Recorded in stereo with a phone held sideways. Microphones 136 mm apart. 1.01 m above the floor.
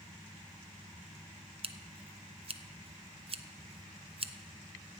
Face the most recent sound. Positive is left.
turn(degrees=-45)  # may be behind; listen again after turning